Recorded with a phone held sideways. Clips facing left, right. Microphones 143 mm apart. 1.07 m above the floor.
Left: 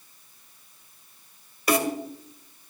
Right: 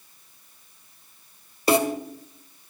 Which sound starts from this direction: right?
A snare drum, at 1.7 s.